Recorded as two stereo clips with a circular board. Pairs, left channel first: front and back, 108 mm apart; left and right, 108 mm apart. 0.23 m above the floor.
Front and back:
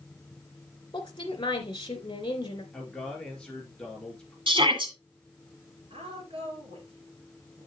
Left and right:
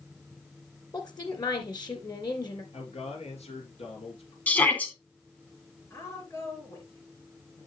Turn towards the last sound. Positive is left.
turn(degrees=155)